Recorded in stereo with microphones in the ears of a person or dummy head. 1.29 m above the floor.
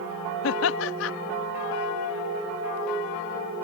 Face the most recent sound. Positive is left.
turn(degrees=70)  # may be behind; listen again after turning